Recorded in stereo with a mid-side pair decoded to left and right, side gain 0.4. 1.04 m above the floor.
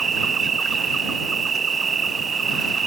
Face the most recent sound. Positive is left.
turn(degrees=-45)